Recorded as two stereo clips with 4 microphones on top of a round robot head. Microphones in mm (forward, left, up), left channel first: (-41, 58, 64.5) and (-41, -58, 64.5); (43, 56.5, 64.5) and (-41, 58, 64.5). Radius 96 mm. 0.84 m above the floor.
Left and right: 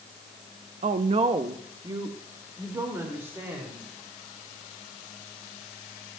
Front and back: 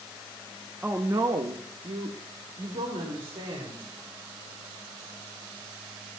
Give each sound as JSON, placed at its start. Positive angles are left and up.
{"t": 0.8, "sound": "a woman speaking", "azimuth_deg": -100, "distance_m": 0.7}